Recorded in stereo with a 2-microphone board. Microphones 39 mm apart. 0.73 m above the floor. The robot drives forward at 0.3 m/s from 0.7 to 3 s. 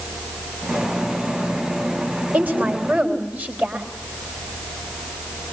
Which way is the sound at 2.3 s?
45° right (ahead or behind).